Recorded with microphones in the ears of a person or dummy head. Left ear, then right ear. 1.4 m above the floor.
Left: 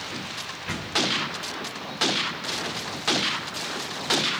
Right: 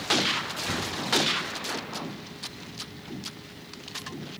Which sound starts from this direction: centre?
A door slam, at 0.7 s.